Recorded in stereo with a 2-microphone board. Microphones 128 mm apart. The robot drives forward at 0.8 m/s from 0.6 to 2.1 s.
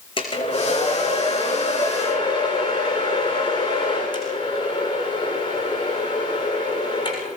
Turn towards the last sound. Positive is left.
turn(degrees=35)  # may be behind; listen again after turning